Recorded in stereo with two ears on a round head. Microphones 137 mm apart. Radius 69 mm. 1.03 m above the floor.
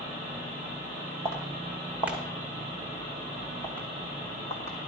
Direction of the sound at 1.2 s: 15° right (ahead or behind).